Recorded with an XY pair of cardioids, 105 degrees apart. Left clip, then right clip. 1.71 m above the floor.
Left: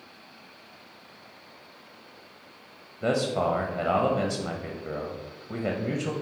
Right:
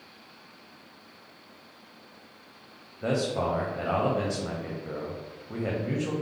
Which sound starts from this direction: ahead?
A man speaking, at 3.0 s.